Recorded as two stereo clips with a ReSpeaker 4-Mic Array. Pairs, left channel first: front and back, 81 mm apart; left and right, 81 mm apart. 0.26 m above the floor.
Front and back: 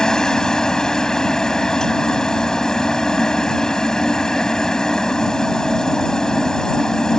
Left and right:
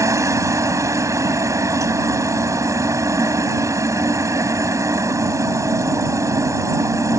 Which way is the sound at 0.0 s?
80° right.